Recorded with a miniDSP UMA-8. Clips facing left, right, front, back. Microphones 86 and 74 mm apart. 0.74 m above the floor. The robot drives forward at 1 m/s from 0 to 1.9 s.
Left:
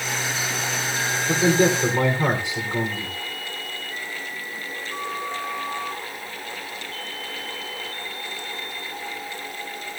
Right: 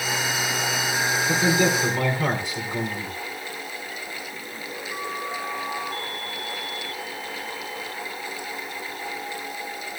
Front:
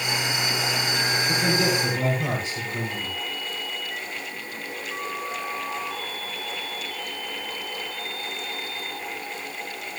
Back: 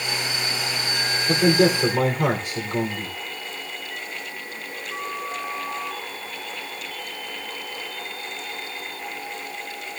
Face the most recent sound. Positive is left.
turn(degrees=160)